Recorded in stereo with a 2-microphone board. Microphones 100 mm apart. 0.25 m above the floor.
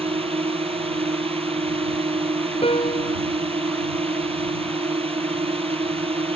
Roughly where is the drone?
Right.